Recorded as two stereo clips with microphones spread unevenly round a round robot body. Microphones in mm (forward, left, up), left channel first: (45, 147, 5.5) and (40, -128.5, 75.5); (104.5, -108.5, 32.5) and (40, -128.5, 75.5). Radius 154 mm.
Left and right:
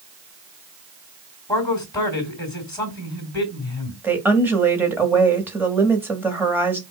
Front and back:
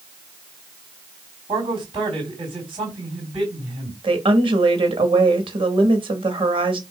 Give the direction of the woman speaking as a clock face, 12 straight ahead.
6 o'clock.